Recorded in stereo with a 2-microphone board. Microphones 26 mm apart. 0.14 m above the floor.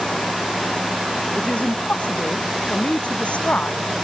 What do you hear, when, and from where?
1.4 s a woman speaking: 55° left (ahead or behind)